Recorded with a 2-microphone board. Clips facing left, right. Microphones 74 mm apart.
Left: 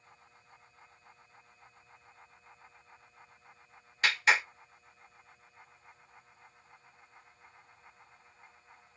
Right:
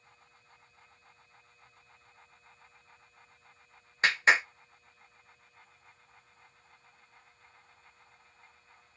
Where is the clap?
30° right (ahead or behind), 1.5 m.